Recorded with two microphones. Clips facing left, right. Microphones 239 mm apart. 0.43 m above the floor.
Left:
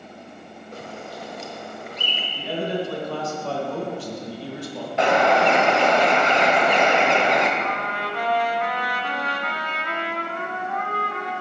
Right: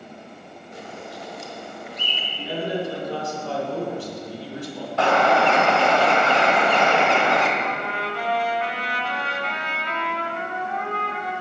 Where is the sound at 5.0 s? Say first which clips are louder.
Left 1 dB; 20° left (ahead or behind), 1.1 m.